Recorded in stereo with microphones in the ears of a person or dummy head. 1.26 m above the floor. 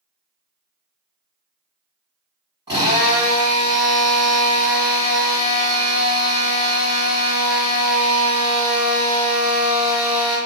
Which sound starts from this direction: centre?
A drill, at 2.7 s.